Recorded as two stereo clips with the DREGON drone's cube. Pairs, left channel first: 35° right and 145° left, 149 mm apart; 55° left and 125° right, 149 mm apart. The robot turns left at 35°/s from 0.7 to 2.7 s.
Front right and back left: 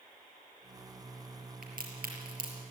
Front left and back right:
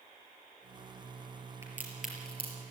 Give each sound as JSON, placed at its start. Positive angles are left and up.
{"t": 1.6, "sound": "a crack", "azimuth_deg": 165, "distance_m": 5.0}